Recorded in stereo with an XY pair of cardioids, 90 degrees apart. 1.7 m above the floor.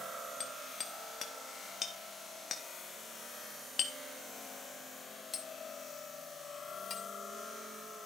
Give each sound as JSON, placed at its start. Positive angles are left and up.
{"t": 0.4, "sound": "hammering", "azimuth_deg": 50, "distance_m": 3.0}